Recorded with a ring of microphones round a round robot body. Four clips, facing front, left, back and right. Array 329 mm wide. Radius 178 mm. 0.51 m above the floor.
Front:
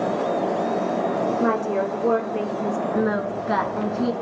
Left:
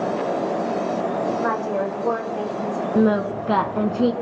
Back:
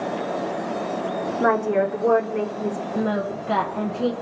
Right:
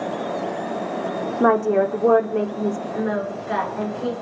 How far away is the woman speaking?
About 1.3 m.